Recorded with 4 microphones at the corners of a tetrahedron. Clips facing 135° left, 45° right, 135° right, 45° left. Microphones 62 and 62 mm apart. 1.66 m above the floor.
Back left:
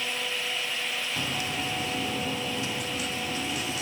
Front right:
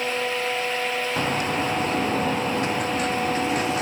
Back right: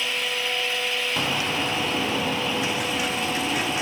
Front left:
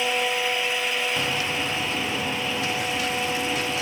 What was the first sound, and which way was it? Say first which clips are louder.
A bird: front right 9 dB, back right 1 dB; 65° right.